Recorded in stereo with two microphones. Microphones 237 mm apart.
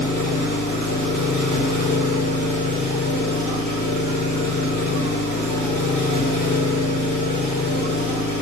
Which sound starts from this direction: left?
An engine running, at 0.0 s.